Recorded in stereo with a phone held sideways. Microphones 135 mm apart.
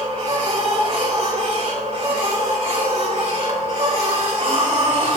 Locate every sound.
0.0 s a machine running: 55° right (ahead or behind), 3.5 m